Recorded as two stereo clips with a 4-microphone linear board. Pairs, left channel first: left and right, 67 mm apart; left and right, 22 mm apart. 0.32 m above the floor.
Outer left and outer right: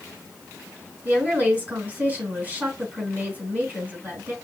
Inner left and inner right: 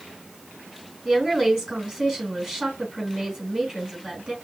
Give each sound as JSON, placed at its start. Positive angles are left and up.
{"t": 1.1, "sound": "a woman speaking", "side_deg": -25, "distance_m": 3.5}